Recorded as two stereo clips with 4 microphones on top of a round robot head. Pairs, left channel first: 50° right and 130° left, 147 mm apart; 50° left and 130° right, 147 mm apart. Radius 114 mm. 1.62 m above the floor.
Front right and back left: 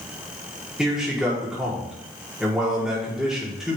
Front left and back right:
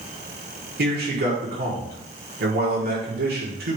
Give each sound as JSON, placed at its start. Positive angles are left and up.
{"t": 0.8, "sound": "a man speaking", "azimuth_deg": -145, "distance_m": 4.5}